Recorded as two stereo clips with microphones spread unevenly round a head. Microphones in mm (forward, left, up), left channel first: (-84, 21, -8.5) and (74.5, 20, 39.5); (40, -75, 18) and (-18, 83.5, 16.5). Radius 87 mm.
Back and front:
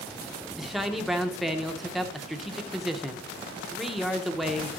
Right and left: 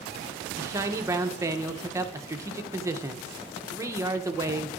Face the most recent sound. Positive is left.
turn(degrees=145)